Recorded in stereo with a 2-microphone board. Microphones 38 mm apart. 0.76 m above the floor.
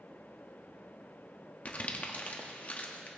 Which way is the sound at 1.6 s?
40° left (ahead or behind).